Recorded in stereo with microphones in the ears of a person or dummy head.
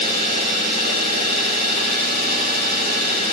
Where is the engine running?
50° right (ahead or behind), 7 m.